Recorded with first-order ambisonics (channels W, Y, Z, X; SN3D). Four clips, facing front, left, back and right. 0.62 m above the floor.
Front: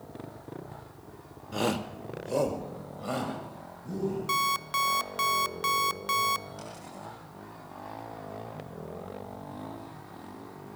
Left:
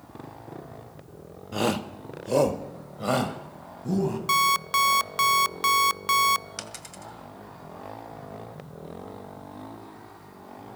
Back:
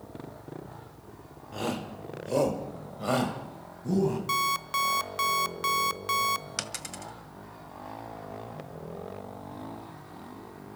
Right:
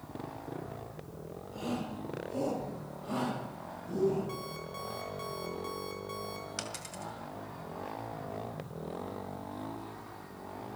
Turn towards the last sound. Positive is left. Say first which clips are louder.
# left 1 dB, back 5 dB
turn(degrees=170)